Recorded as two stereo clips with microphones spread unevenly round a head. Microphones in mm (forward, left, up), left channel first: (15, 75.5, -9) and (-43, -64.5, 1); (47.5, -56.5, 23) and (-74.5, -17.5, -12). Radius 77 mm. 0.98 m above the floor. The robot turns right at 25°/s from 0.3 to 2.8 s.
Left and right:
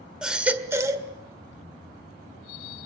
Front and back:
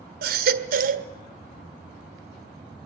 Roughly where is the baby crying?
Behind.